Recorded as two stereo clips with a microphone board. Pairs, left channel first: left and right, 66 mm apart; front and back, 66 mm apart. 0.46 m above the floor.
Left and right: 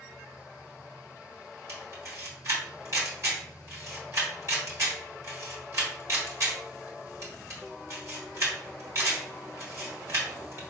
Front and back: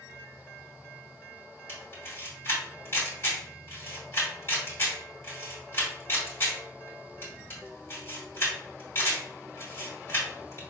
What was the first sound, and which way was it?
A camera shutter, 55° right.